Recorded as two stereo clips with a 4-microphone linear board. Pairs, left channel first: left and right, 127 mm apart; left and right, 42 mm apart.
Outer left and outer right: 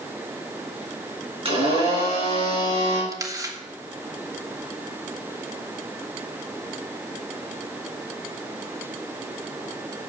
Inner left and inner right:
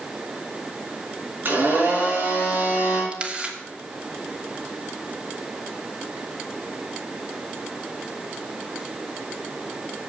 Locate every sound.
1.4 s a blender: 40° right (ahead or behind), 6.5 m
3.1 s a camera shutter: 25° right (ahead or behind), 1.2 m